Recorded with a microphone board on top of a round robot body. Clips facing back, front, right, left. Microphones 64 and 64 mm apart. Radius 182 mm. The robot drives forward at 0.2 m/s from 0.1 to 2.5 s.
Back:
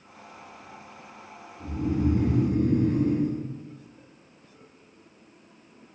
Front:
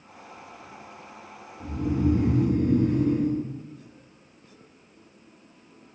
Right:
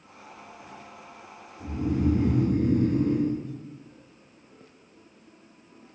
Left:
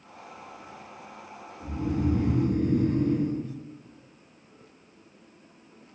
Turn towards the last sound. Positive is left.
turn(degrees=-155)